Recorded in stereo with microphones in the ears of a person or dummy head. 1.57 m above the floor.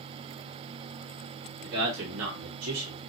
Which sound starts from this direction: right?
A man speaking, at 1.6 s.